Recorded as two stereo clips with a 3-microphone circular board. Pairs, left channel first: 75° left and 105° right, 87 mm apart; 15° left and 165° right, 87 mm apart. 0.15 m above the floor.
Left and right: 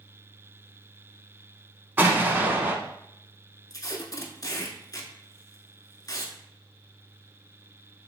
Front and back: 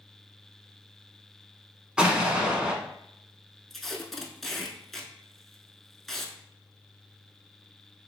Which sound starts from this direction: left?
Tape being pulled, at 3.7 s.